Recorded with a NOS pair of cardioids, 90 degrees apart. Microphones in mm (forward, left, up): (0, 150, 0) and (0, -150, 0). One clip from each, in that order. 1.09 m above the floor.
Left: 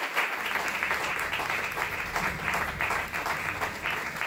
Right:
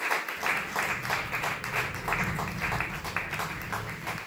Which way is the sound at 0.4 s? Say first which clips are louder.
Even; 65° right.